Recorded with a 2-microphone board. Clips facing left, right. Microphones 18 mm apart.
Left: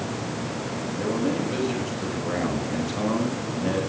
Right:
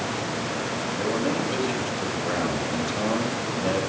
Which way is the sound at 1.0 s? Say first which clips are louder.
Left 1 dB; 40° right (ahead or behind).